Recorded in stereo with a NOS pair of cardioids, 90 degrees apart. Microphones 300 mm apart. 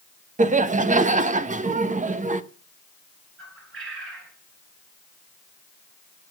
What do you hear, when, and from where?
0.4 s laughter: 25° right, 1.3 m
3.4 s a bird: 45° right, 5 m